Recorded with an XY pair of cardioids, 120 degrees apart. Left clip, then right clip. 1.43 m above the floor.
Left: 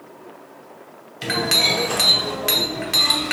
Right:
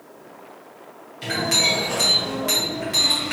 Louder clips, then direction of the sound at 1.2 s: Left 2 dB; 55° left.